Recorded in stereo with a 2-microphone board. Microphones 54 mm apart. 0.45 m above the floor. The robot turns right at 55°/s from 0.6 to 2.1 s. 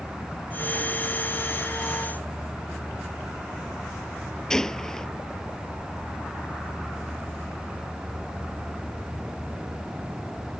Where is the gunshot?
10° left (ahead or behind).